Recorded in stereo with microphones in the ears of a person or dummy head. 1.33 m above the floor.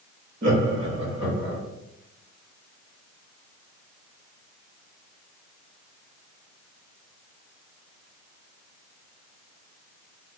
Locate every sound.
0.4 s laughter: 50° right (ahead or behind), 1.8 m; by 1.6 s 20° right (ahead or behind), 1.7 m